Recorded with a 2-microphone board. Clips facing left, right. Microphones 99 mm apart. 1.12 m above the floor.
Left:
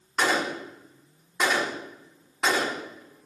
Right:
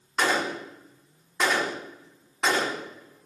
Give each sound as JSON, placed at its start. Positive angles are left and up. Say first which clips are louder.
{"t": 0.2, "sound": "a gunshot", "louder": "even", "side_deg": 5, "distance_m": 3.5}